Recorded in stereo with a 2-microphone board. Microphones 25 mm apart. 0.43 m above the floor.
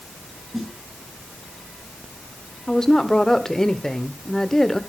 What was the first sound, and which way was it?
A snare drum, 10° right (ahead or behind).